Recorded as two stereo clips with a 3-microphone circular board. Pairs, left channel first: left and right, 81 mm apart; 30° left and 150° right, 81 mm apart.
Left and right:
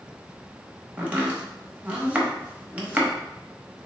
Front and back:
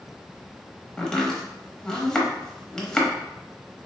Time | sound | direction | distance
1.0 | chopping | 40° right | 0.8 m